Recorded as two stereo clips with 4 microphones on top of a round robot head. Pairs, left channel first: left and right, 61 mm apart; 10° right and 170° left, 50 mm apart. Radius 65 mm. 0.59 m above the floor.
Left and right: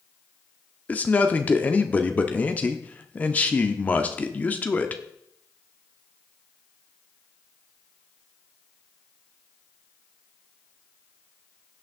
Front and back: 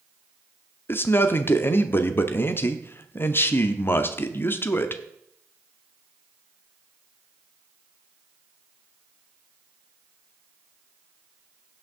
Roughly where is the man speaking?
Ahead left.